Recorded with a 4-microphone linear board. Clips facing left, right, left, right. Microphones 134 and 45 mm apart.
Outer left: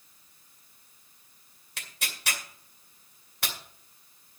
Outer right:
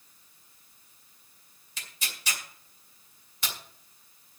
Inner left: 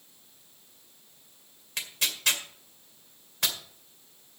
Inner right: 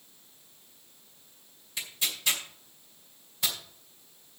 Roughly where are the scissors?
I don't hear scissors.